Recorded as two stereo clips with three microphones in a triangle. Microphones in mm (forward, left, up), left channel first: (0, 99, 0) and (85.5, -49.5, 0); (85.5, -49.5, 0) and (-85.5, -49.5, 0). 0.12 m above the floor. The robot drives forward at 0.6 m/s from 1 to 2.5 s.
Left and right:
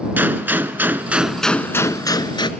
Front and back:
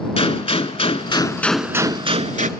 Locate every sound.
0.2 s a gunshot: 15° left, 0.6 m; by 2.5 s 170° left, 0.7 m